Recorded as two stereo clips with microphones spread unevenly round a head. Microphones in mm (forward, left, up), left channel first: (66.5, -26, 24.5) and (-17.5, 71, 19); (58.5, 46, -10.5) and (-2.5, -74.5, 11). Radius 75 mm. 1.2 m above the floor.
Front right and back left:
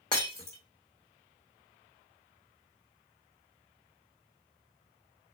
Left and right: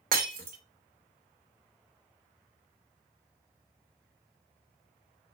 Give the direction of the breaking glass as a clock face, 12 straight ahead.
4 o'clock.